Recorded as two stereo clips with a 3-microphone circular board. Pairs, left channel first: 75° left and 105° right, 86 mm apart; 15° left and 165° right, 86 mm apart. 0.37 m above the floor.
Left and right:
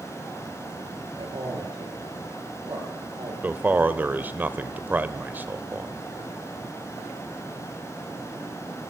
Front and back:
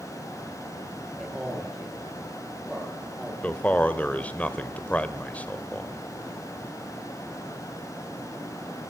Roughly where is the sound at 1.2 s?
Right.